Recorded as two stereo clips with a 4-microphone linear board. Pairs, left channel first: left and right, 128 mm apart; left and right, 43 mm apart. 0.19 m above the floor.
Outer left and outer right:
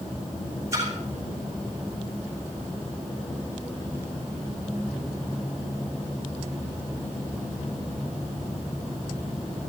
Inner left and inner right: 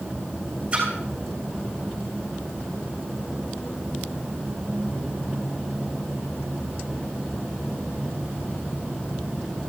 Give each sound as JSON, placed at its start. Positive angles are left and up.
{"t": 0.7, "sound": "a splash", "side_deg": -25, "distance_m": 7.0}